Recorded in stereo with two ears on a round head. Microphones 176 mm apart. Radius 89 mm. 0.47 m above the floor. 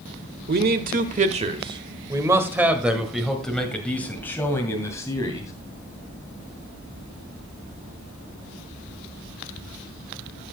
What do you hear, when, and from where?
0.5 s a man speaking: 50° right (ahead or behind), 1.3 m; by 5.5 s 15° left (ahead or behind), 2.5 m